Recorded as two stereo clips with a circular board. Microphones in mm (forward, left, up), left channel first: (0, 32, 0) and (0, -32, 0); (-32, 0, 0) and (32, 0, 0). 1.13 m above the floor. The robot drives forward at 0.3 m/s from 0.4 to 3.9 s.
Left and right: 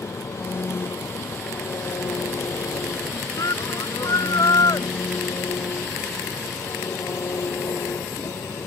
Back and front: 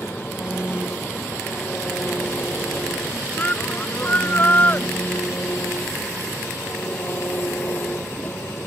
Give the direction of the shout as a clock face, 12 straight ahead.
8 o'clock.